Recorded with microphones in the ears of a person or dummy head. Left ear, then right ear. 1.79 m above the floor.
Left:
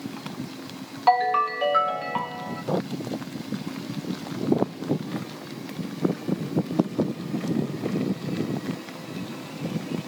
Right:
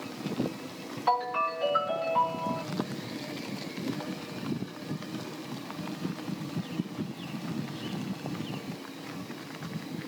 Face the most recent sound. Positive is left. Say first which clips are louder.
# left 7 dB
turn(degrees=30)  # may be behind; listen again after turning